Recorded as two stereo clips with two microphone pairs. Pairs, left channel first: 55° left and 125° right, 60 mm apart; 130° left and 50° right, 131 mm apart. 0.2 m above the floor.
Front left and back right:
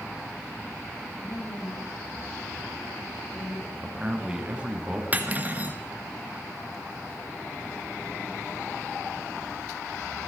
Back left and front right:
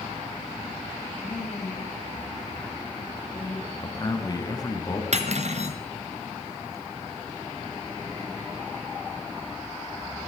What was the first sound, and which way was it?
A woman speaking, 85° left.